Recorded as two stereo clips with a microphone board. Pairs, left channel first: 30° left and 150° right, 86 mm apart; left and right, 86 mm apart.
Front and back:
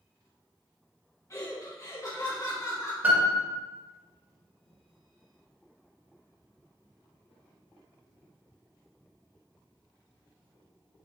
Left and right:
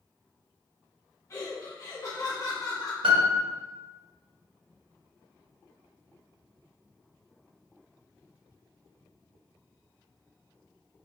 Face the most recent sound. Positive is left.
turn(degrees=-80)